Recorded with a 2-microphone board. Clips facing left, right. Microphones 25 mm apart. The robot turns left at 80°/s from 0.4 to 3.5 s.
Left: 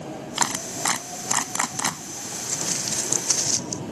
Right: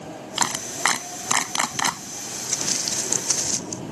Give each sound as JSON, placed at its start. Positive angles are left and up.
{"t": 0.4, "sound": "a clap", "side_deg": -10}
{"t": 2.5, "sound": "footsteps", "side_deg": -60}